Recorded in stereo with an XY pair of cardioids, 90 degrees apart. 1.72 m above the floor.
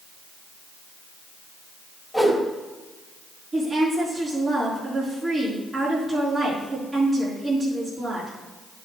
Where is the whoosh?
Straight ahead, 3.5 m.